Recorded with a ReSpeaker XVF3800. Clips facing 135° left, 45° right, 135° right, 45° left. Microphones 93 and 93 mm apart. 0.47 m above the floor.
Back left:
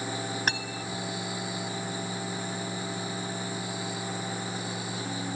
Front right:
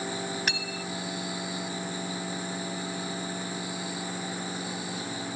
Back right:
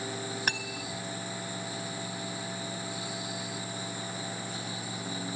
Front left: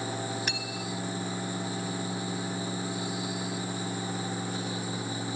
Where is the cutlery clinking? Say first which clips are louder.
Back left 1 dB, even; 175° right.